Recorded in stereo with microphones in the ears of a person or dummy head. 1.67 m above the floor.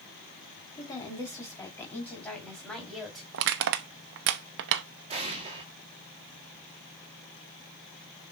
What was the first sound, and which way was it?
A woman speaking, 20° left (ahead or behind).